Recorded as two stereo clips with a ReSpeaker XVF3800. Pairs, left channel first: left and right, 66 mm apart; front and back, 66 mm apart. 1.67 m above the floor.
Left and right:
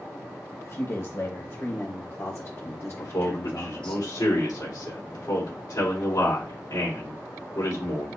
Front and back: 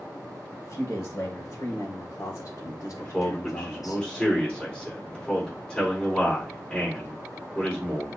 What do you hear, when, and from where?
0.6 s a man speaking: 55° left, 2 m; by 4.0 s 15° left, 0.6 m
3.0 s a man speaking: 80° left, 3.5 m